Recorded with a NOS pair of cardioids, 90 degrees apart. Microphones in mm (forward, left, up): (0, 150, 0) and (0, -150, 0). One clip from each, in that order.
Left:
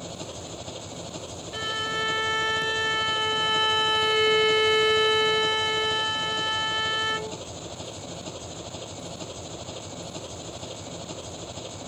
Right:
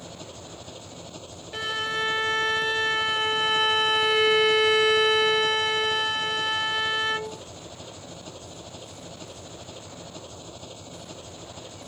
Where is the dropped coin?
I don't hear a dropped coin.